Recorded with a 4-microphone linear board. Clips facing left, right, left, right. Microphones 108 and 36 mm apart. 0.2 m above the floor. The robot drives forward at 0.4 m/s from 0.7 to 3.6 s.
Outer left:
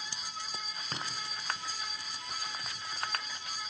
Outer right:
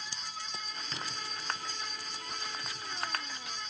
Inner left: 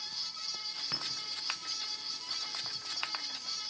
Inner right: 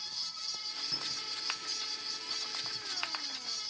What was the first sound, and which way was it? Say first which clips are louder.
A clink: outer left 2 dB, inner left 2 dB; 45° left (ahead or behind).